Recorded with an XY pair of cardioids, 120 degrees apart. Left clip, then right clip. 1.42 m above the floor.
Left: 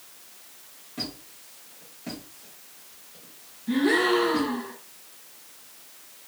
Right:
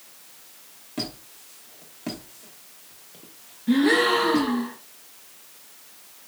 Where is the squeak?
45° right, 1.1 m.